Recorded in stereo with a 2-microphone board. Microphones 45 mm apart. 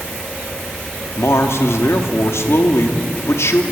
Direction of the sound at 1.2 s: 75° left (ahead or behind).